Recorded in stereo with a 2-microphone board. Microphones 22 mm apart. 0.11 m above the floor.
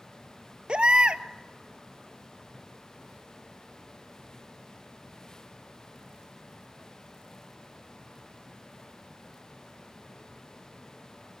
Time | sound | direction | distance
0.7 | a baby crying | 50° right (ahead or behind) | 0.8 m